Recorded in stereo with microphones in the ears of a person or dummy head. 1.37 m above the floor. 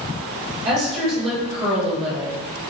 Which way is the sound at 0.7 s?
45° right (ahead or behind).